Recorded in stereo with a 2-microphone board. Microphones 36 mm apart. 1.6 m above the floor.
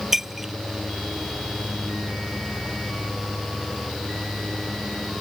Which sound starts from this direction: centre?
Breaking glass, at 0.1 s.